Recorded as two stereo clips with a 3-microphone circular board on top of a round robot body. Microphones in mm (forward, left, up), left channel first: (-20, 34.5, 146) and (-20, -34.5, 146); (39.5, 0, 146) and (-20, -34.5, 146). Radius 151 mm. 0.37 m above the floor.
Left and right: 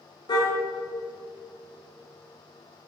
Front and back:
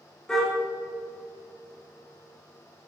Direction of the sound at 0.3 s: 110° left.